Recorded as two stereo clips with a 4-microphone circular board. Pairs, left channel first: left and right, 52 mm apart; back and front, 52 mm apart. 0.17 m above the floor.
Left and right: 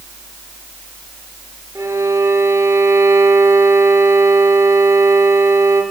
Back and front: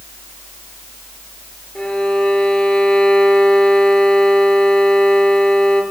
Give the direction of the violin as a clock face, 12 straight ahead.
4 o'clock.